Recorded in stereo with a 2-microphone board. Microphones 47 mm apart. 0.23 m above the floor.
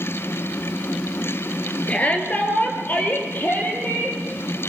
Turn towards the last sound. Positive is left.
turn(degrees=45)  # may be behind; listen again after turning